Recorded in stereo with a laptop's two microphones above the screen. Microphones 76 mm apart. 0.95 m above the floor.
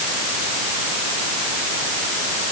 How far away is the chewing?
No chewing in this recording.